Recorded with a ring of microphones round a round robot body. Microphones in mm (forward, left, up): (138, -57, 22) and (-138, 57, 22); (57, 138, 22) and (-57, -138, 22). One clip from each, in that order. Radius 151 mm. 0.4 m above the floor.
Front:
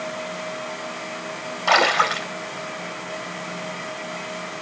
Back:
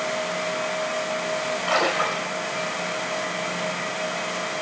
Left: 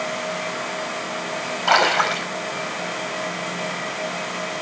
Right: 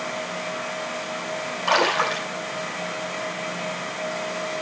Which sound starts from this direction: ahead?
A splash, at 1.7 s.